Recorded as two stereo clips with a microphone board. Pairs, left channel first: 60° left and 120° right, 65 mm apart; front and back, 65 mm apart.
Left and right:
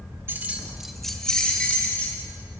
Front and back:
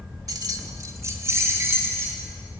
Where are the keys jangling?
170° right, 1.0 m; by 2.2 s 125° left, 3 m.